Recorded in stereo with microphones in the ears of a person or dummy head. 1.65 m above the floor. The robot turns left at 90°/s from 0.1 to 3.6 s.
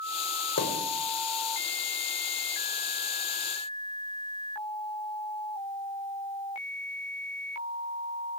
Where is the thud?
60° left (ahead or behind), 3.5 m; by 0.8 s 75° left (ahead or behind), 3.5 m.